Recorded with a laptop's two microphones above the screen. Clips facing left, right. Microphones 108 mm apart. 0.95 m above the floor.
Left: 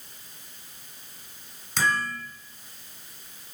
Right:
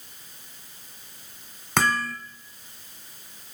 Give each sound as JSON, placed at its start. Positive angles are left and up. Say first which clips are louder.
{"t": 1.8, "sound": "hammering", "louder": "right 2 dB", "side_deg": -70, "distance_m": 2.0}